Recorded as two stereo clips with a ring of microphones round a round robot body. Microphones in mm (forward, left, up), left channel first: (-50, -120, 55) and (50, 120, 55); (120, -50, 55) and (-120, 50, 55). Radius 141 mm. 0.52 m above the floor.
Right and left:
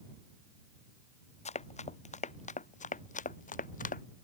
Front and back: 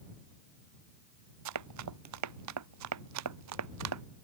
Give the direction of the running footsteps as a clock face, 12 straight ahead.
6 o'clock.